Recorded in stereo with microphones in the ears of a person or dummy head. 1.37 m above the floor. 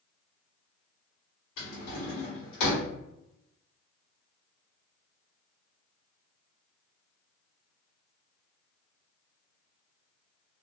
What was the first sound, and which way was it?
A drawer, 55° left (ahead or behind).